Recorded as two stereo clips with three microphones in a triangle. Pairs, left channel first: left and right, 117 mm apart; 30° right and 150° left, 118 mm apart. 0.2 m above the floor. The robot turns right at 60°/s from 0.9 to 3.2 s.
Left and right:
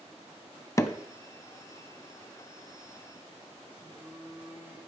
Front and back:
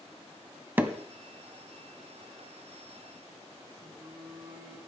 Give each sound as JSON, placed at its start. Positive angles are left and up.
{"t": 0.8, "sound": "hammering", "azimuth_deg": 100, "distance_m": 0.7}
{"t": 3.7, "sound": "a phone buzzing", "azimuth_deg": -160, "distance_m": 6.5}